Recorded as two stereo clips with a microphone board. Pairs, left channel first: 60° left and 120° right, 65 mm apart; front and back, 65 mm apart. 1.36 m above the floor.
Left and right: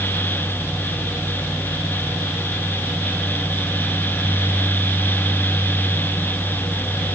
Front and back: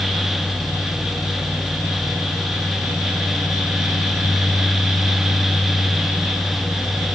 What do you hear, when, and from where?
Only background noise.